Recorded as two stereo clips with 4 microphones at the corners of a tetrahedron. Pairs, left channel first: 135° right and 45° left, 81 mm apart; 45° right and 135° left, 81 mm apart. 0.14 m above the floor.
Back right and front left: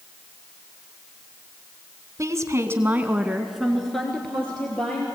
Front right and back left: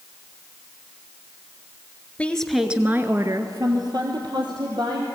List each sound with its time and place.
2.2 s a woman speaking: 20° left, 1.4 m; by 5.0 s 150° left, 3.5 m